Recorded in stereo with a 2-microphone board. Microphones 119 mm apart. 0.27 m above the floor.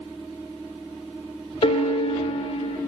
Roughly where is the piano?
Left.